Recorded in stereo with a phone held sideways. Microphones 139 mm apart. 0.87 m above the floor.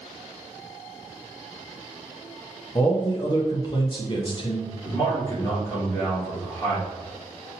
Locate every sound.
2.8 s a man speaking: 35° left (ahead or behind), 0.6 m
4.8 s a man speaking: 30° left (ahead or behind), 2 m